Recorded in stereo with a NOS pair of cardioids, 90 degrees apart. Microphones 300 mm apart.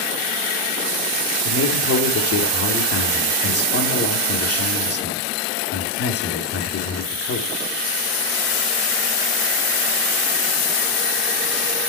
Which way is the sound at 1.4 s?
55° left.